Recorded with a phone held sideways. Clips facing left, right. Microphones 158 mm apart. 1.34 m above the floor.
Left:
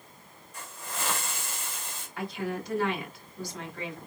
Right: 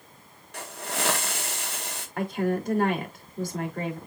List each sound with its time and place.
0.5 s a hiss: 70° right (ahead or behind), 1.8 m
2.2 s a woman speaking: 50° right (ahead or behind), 3.5 m